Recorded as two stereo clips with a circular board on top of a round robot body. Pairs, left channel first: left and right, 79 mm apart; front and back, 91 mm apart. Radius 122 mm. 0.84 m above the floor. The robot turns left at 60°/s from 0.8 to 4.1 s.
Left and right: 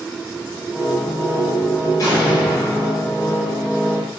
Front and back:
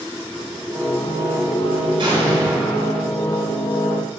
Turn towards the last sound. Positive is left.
turn(degrees=20)